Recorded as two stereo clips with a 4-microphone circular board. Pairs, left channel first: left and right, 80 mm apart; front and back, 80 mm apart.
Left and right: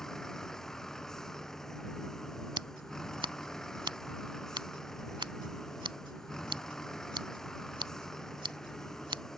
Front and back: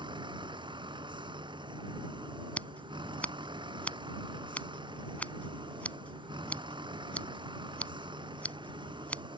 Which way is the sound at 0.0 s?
175° left.